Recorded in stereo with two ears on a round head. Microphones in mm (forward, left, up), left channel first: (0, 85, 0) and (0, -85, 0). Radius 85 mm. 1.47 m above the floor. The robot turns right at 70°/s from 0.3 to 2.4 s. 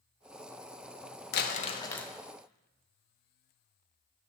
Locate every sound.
1.3 s crumpling: 125° left, 0.6 m; by 2.1 s 175° left, 0.6 m